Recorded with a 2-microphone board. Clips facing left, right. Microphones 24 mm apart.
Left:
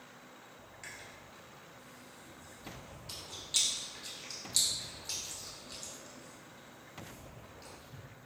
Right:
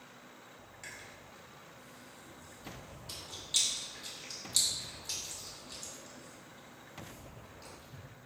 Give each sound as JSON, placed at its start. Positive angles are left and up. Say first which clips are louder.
{"t": 0.8, "sound": "chewing", "louder": "even", "side_deg": 5, "distance_m": 1.6}